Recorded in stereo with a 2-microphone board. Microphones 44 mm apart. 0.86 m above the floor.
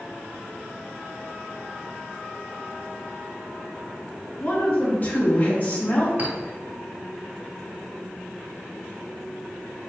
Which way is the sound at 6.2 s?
50° right (ahead or behind).